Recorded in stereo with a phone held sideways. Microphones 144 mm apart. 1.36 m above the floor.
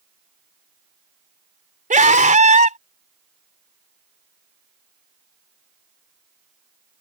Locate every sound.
1.9 s a scream: 60° right (ahead or behind)